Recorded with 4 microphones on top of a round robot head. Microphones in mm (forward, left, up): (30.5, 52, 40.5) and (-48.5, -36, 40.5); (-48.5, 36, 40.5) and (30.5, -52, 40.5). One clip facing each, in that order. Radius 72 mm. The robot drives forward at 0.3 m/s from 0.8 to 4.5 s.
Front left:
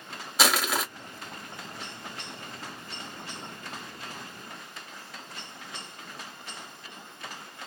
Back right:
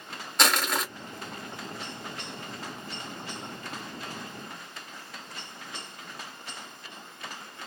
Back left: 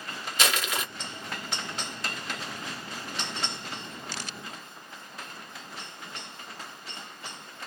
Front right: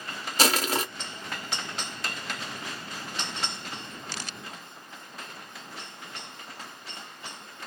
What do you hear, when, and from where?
0.4 s crushing: 35° right, 1.5 m